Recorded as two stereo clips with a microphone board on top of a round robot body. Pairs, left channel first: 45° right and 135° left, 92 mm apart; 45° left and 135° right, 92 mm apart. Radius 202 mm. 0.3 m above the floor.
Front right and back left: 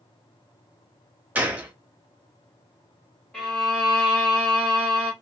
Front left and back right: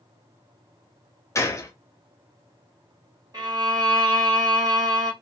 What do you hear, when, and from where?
1.4 s a gunshot: 75° left, 1.0 m
3.3 s a violin: 125° right, 2.0 m